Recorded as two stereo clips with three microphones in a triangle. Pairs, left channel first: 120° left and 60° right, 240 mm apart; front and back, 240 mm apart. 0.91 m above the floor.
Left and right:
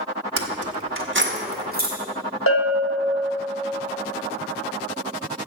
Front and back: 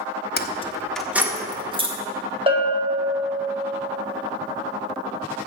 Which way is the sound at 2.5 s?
115° left.